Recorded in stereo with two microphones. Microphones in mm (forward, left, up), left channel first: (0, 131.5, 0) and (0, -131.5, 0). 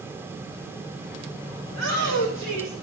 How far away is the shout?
About 1.2 m.